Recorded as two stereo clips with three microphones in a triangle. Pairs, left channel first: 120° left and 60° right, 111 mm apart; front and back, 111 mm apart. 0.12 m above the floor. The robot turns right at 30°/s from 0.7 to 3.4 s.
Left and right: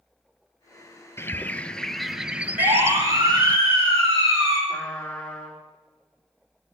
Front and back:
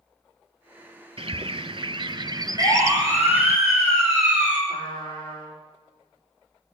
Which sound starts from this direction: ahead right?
A siren, at 2.6 s.